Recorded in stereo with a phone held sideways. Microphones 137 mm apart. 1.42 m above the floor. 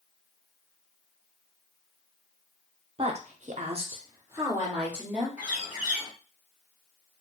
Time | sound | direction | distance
3.0 | a woman speaking | 40° right (ahead or behind) | 0.8 m
5.4 | a bird | 10° right (ahead or behind) | 1.4 m